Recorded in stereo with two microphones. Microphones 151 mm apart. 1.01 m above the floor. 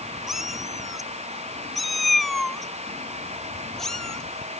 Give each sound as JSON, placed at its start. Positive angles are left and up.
{"t": 0.3, "sound": "a cat meowing", "side_deg": 0}